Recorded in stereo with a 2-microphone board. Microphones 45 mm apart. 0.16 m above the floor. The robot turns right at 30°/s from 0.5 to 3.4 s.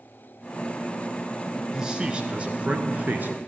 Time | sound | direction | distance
1.7 | a man speaking | 160° right | 1.7 m